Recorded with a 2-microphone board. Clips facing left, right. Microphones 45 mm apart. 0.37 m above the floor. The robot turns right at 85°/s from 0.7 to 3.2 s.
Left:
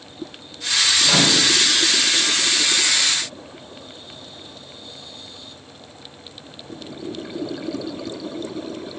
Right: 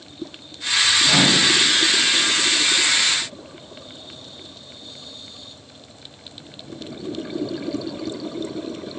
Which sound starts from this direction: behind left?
A microwave, at 1.0 s.